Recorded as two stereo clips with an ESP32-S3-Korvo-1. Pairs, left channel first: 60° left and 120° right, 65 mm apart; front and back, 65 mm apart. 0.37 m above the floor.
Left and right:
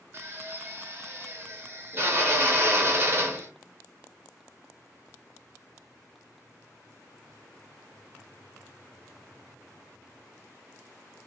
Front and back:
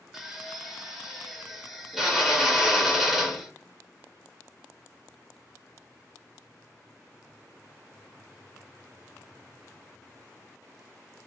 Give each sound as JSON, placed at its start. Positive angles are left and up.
{"t": 0.1, "sound": "a drill", "azimuth_deg": -95, "distance_m": 0.6}